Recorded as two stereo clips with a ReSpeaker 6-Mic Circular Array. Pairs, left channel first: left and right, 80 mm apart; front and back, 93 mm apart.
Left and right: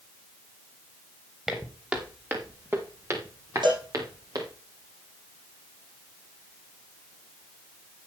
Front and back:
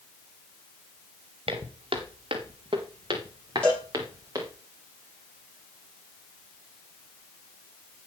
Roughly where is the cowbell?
Right.